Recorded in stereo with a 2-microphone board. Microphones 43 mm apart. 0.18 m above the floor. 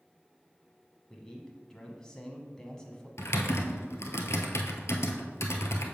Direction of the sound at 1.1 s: 15° left (ahead or behind).